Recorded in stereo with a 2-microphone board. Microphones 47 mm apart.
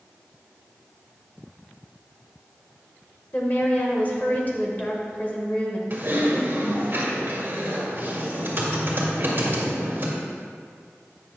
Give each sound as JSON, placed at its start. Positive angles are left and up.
{"t": 3.3, "sound": "a woman speaking", "side_deg": 35, "distance_m": 1.3}
{"t": 5.9, "sound": "typing on a keyboard", "side_deg": -45, "distance_m": 1.6}